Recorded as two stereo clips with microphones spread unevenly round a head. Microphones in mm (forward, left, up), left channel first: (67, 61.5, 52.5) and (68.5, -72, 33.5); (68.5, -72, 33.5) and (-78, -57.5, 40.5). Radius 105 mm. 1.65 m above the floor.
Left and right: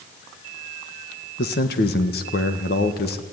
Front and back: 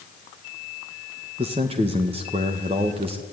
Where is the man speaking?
110° left, 1.7 m.